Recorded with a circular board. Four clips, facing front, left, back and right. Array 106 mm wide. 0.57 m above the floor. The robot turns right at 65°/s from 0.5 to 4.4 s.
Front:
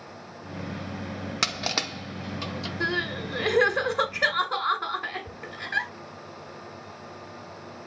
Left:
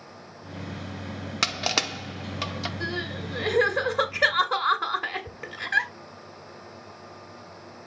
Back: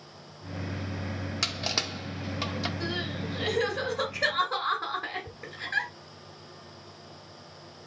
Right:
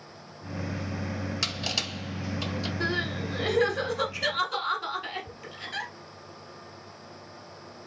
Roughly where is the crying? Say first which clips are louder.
Right 2 dB, front 4 dB; ahead right.